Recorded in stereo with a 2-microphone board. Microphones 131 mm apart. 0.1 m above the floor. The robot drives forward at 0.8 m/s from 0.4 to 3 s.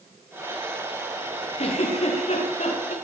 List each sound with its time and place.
1.6 s a giggle: 60° left (ahead or behind), 9.5 m; by 2.9 s 65° left (ahead or behind), 9 m